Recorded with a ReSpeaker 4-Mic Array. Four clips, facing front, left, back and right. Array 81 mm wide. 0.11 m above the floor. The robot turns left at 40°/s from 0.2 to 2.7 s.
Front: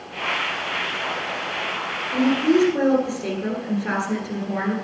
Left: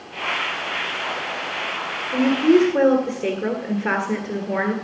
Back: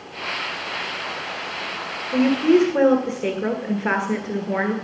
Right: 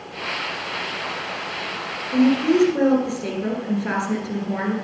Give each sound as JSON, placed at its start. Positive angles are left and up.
{"t": 2.1, "sound": "a woman speaking", "azimuth_deg": 160, "distance_m": 1.6}